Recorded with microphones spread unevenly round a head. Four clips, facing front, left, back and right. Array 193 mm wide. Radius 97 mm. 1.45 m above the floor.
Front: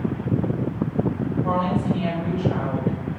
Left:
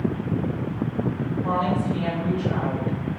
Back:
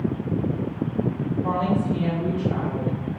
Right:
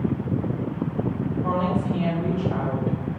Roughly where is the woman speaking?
Behind right.